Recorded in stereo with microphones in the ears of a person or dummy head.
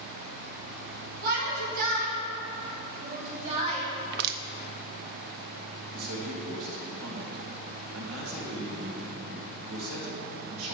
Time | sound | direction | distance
1.2 | a shout | 50° right (ahead or behind) | 3.5 m
4.0 | crushing | 60° right (ahead or behind) | 0.6 m
5.9 | a man speaking | 85° right | 2.5 m